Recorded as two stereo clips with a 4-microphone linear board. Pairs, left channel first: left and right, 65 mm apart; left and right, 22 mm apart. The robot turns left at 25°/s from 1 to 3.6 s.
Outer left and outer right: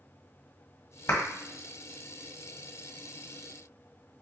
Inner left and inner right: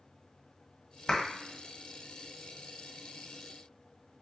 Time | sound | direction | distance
1.1 | a clap | 45° left (ahead or behind) | 1.2 m